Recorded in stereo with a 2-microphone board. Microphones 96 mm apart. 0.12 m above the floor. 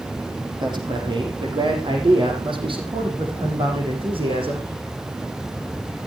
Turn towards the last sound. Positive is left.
turn(degrees=-70)  # may be behind; listen again after turning